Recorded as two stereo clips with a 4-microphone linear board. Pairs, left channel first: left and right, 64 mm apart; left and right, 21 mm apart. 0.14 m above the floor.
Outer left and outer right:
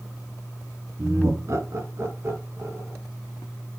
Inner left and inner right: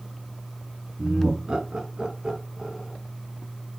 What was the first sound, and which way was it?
Laughter, 45° right (ahead or behind).